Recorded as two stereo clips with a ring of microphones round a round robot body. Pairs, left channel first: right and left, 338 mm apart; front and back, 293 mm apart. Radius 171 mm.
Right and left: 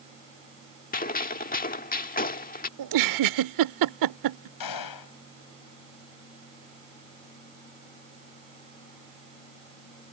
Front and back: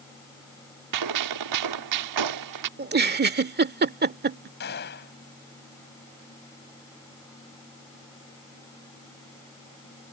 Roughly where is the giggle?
Behind left.